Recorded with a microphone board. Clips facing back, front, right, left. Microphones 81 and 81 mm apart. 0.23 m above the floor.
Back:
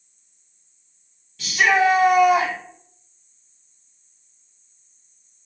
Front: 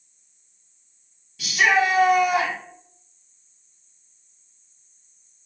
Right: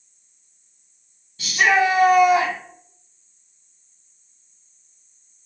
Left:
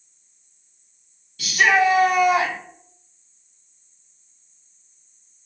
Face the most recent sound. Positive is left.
turn(degrees=-135)